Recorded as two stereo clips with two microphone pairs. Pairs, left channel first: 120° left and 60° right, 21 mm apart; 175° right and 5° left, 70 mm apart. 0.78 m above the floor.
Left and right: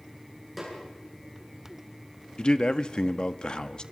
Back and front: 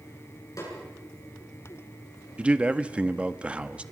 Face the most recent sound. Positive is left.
turn(degrees=80)